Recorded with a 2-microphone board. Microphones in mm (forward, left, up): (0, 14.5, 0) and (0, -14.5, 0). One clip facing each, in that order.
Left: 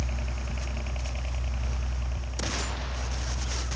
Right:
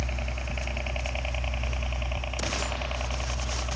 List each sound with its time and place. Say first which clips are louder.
0.0 s a helicopter: right 3 dB; 20° right (ahead or behind); by 3.8 s 50° right (ahead or behind)